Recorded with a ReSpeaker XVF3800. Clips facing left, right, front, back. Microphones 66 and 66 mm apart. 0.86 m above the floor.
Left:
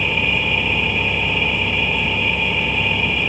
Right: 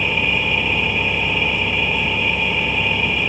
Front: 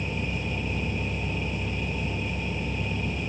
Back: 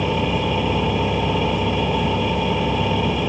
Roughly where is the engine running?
Behind.